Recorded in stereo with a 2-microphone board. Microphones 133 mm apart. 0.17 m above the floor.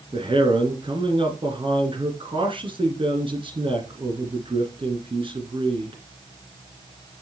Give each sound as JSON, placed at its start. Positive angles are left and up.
{"t": 0.1, "sound": "a man speaking", "side_deg": -40, "distance_m": 2.0}